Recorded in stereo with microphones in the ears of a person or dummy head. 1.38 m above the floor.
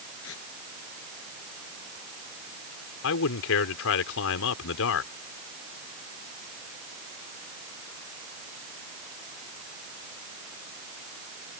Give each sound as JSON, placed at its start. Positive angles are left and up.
{"t": 0.2, "sound": "tearing paper", "side_deg": 70}
{"t": 3.0, "sound": "a man speaking", "side_deg": 80}